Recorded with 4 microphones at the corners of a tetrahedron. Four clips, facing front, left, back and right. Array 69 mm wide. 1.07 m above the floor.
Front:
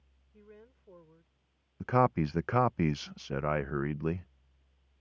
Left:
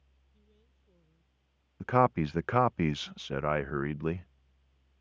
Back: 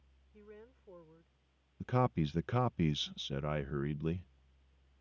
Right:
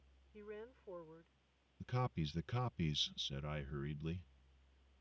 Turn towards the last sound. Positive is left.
turn(degrees=60)